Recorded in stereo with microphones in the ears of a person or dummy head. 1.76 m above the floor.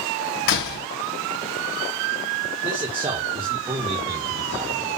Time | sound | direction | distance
0.5 | a door slam | 55° left (ahead or behind) | 1.5 m
2.6 | a man speaking | 25° right (ahead or behind) | 1.6 m